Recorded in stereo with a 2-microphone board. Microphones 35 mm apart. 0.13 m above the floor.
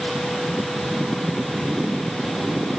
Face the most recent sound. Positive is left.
No sound to turn to.